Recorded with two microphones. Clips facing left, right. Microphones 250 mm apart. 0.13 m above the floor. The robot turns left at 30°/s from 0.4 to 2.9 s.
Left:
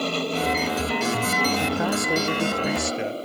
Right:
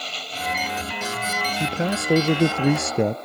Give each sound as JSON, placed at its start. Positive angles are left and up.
{"t": 0.0, "sound": "an aircraft", "azimuth_deg": 110}
{"t": 1.6, "sound": "a man speaking", "azimuth_deg": -25}